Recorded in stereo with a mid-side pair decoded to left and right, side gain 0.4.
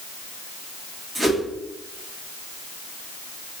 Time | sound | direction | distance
1.1 | a whoosh | 10° right | 1.8 m